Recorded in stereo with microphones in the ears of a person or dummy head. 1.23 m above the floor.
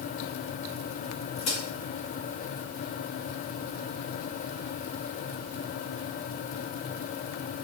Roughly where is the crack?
Left.